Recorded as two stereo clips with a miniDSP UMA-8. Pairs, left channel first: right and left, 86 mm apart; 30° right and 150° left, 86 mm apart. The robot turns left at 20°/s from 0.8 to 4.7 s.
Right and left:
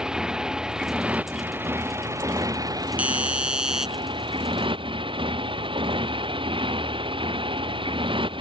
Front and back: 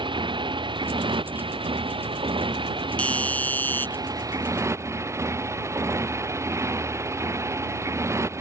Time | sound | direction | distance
0.0 | a motorcycle | 170° left | ?
3.0 | a doorbell | 30° left | ?